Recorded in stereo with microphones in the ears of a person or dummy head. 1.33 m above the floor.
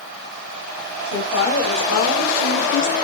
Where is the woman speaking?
90° left, 2.5 m; by 3.0 s 65° left (ahead or behind), 0.5 m.